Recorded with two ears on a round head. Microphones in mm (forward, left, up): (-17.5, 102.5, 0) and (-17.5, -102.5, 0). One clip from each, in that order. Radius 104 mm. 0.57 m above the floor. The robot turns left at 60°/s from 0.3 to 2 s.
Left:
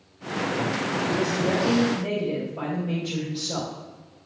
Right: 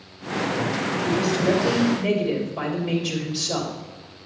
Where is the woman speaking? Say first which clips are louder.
Right 4 dB; 15° right, 3 m; by 3.7 s 75° right, 3 m.